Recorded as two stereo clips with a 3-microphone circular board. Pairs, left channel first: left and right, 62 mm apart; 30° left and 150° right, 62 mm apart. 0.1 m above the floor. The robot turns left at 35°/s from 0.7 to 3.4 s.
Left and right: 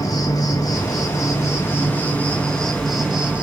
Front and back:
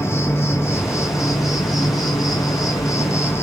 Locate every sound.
0.0 s an insect: 75° left, 0.7 m; by 3.4 s 20° right, 0.7 m